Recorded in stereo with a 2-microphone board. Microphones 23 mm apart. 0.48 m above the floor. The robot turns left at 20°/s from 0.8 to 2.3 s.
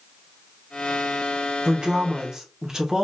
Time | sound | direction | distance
1.6 | a woman speaking | 30° right (ahead or behind) | 0.8 m